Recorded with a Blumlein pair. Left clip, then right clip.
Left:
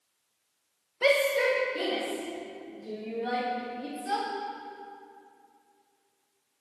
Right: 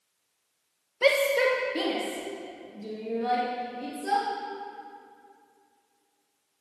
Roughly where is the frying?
No frying in this recording.